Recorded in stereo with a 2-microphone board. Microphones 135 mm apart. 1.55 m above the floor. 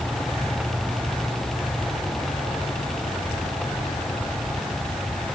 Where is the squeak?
I don't hear a squeak.